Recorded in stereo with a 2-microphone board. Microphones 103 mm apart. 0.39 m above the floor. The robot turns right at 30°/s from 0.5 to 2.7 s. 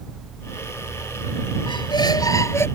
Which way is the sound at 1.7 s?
125° left.